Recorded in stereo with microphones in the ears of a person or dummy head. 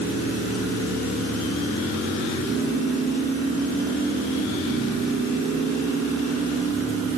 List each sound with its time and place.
Only background noise.